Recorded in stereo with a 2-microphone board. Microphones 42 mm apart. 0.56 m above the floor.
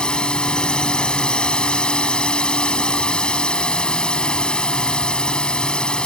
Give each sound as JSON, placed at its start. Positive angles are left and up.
{"t": 0.0, "sound": "a drone", "side_deg": 20}